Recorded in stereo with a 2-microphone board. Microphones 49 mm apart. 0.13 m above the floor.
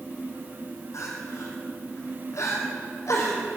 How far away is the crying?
About 3.5 m.